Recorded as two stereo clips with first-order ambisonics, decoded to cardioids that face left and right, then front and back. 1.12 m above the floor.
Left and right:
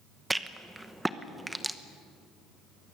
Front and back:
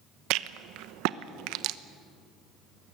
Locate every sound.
0.3 s a rattle: 175° right, 0.8 m